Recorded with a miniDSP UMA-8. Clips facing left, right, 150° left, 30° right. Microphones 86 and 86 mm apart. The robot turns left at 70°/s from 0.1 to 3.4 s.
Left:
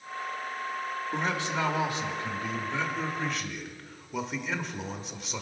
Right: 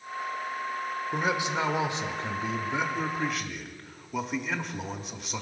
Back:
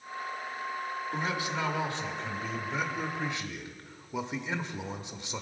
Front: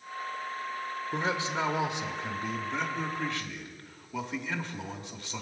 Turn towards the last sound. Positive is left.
turn(degrees=180)